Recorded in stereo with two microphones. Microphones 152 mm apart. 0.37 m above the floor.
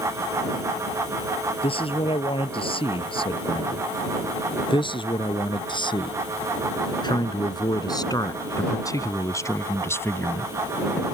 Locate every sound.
1.6 s a man speaking: 40° left (ahead or behind); by 10.5 s 15° left (ahead or behind)